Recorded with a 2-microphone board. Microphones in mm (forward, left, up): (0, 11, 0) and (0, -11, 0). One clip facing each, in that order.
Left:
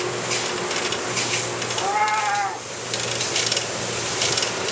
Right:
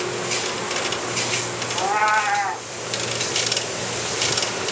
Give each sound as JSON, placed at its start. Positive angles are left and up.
{"t": 1.8, "sound": "a cat meowing", "side_deg": -40, "distance_m": 1.0}